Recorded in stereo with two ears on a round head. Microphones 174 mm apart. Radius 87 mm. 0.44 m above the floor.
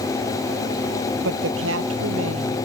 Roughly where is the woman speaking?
Right.